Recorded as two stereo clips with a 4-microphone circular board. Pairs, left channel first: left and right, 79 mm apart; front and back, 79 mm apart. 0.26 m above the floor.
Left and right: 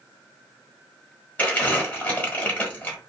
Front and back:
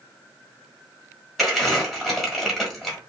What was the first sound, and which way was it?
Crumpling, 90° left.